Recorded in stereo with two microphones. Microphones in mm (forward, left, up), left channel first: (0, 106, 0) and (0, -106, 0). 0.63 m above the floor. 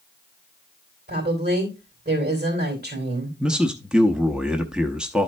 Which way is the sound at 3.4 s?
5° right (ahead or behind).